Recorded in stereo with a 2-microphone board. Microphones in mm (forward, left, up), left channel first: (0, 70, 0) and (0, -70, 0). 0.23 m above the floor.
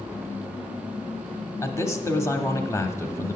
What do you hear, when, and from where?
1.6 s a man speaking: 20° left (ahead or behind), 1.0 m